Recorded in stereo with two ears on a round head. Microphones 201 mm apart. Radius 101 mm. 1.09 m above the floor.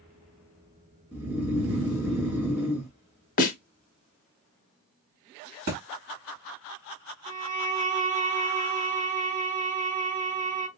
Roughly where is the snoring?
Centre.